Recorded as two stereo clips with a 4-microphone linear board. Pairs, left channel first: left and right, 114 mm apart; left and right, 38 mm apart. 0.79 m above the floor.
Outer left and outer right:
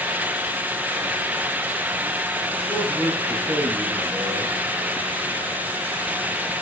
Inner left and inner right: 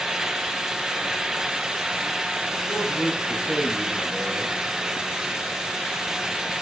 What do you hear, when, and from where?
2.7 s a man speaking: 5° right (ahead or behind), 7 m